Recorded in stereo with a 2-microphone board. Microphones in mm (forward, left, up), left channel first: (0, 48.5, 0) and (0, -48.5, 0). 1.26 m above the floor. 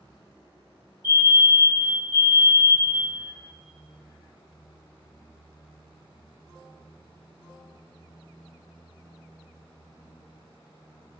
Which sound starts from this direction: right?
A fire alarm, at 1.0 s.